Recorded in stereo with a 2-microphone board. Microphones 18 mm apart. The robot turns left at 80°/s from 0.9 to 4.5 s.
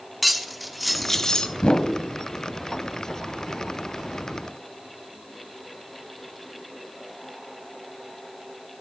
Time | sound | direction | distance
0.2 | cutlery clinking | 175° right | 0.9 m
1.6 | a whoosh | 50° left (ahead or behind) | 1.1 m